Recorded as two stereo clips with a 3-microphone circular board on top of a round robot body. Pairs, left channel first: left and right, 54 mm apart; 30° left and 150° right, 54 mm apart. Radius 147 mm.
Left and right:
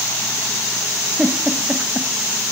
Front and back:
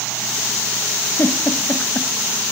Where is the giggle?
10° right, 0.7 m.